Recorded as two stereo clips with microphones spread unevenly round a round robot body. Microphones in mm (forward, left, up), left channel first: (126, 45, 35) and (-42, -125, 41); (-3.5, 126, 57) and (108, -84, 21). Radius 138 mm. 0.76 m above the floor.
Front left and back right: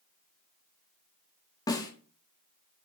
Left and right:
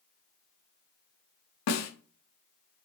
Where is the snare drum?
120° left, 1.5 m.